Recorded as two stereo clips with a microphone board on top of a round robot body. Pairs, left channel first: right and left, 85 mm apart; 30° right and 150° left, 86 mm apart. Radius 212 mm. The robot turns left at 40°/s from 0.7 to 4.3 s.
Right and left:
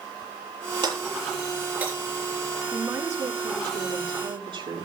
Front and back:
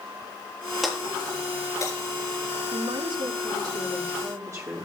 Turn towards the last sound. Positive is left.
turn(degrees=100)